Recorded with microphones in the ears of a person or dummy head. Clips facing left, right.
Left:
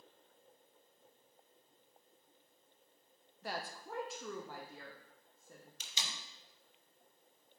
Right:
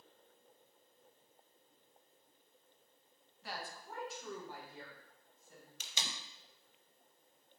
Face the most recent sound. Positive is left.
turn(degrees=-50)  # may be behind; listen again after turning